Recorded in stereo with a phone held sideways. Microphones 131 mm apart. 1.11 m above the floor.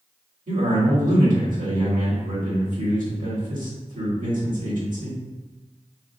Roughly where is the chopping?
I don't hear chopping.